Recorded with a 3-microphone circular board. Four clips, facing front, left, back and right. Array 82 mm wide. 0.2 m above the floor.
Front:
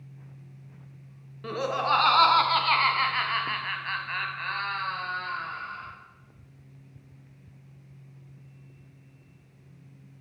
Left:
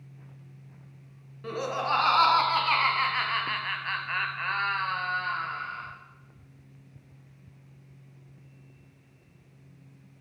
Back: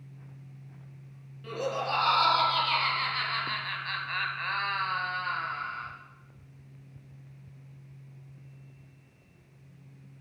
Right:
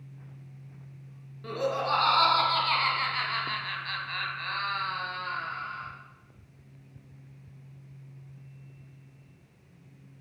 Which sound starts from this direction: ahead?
Laughter, at 1.4 s.